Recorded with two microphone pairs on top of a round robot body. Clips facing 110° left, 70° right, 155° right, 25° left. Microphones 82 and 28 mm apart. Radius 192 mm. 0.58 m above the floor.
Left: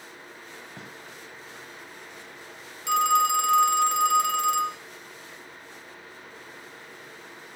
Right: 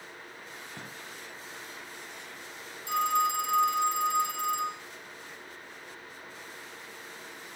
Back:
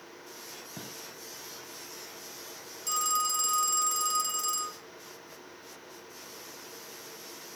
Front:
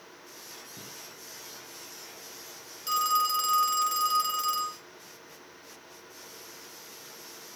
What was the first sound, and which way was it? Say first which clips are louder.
A gunshot: left 1 dB, back 4 dB; 160° right.